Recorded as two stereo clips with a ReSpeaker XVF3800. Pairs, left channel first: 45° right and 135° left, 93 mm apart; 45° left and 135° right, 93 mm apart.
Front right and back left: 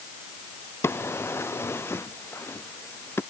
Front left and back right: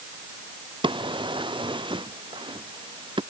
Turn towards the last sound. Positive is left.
turn(degrees=-110)